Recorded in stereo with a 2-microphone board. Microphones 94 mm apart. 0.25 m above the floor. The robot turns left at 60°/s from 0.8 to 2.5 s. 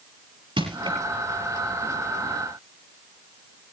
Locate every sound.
0.6 s crushing: 60° right (ahead or behind), 5 m; by 1.0 s 50° right (ahead or behind), 5 m